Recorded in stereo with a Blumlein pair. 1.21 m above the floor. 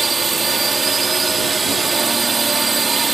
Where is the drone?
15° right.